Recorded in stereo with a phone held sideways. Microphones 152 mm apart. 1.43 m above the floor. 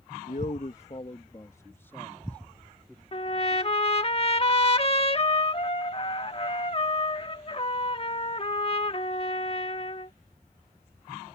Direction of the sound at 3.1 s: 40° left (ahead or behind).